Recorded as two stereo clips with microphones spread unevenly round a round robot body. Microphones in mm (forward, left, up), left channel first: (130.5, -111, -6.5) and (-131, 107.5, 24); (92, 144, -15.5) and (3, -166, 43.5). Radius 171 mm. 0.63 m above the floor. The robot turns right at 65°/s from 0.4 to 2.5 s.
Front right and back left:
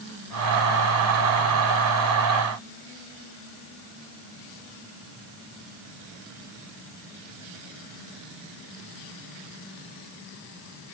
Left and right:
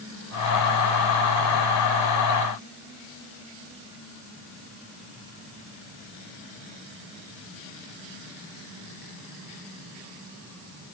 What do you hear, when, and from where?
Only background noise.